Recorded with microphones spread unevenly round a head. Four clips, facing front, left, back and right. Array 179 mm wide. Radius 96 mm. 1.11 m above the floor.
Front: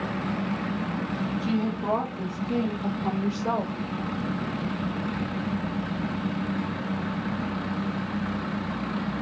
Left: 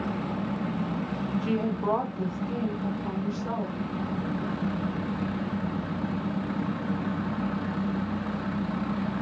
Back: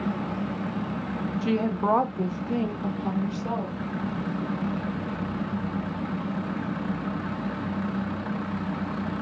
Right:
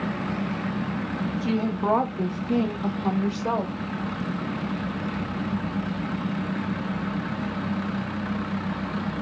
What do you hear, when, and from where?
1.4 s a woman speaking: 165° right, 0.7 m; by 3.8 s 65° right, 1.0 m